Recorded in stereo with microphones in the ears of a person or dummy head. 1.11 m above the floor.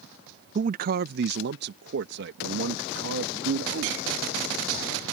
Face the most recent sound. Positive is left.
turn(degrees=-75)  # may be behind; listen again after turning